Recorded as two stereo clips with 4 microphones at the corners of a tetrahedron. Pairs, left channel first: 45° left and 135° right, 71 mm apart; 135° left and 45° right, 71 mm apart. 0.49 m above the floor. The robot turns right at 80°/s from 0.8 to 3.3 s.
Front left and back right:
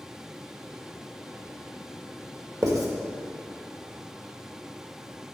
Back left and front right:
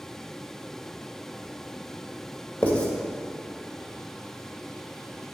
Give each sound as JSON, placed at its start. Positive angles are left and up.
{"t": 2.6, "sound": "writing", "azimuth_deg": -165, "distance_m": 1.7}